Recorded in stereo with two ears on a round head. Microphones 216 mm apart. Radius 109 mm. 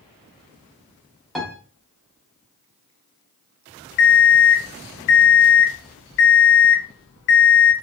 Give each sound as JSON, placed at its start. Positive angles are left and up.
{"t": 1.4, "sound": "a piano", "side_deg": 0, "distance_m": 0.7}
{"t": 4.0, "sound": "an alarm clock", "side_deg": 50, "distance_m": 0.5}